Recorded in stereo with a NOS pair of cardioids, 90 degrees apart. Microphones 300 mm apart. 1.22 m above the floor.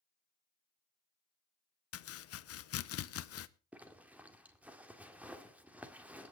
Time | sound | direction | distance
1.9 | chopping | 55° left | 0.7 m
3.7 | a zipper | 5° right | 1.7 m